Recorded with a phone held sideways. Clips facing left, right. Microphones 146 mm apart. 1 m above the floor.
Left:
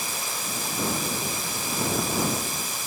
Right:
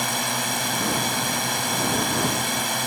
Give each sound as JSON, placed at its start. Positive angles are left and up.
{"t": 0.0, "sound": "a drone", "side_deg": -70}